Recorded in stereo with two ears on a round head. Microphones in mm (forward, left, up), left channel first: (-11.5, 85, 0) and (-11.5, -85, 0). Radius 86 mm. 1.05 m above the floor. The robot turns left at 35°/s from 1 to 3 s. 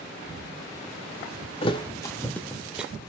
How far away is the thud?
About 1.1 m.